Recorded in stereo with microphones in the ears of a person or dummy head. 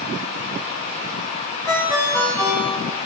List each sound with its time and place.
1.7 s a ringtone: 25° right (ahead or behind), 4.5 m